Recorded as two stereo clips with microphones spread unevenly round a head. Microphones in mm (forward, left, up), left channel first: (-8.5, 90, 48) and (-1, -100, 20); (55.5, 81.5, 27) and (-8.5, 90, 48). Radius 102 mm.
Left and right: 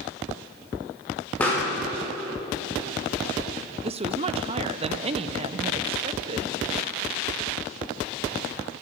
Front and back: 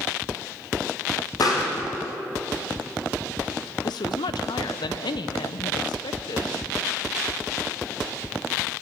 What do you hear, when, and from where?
1.4 s a pop: 10° left, 3.5 m
3.8 s a woman speaking: 25° right, 0.6 m